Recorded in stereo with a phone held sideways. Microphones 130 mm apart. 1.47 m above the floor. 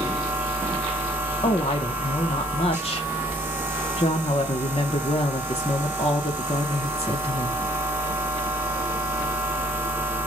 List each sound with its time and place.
0.0 s a machine running: 15° right (ahead or behind), 1.1 m
1.4 s a woman speaking: 50° left (ahead or behind), 0.7 m